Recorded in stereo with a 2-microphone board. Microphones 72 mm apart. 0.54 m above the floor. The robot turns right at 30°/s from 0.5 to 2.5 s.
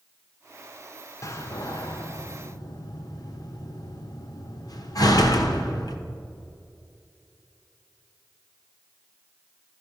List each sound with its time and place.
1.2 s a door slam: 45° left (ahead or behind), 0.9 m; by 6.0 s 60° left (ahead or behind), 0.9 m